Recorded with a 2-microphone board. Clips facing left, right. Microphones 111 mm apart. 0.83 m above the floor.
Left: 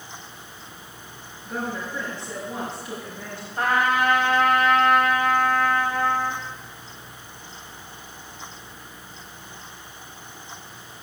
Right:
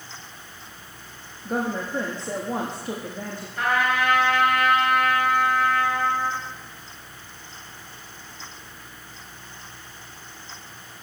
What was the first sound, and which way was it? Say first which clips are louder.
A woman speaking: right 4 dB; 45° right (ahead or behind).